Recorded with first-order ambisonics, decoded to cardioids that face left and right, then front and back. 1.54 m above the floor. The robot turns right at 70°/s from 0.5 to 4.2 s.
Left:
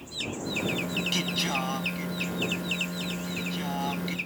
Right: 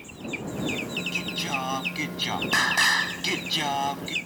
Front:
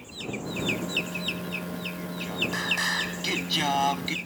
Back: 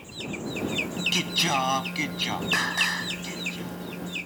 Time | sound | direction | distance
1.1 | singing | 150° left | ?